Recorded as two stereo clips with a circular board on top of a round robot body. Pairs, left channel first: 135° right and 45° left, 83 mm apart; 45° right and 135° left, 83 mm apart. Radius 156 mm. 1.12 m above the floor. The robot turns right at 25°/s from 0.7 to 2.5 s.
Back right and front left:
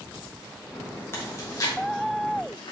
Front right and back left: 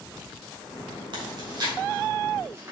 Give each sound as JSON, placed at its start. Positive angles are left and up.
{"t": 1.1, "sound": "chewing", "azimuth_deg": 160, "distance_m": 2.5}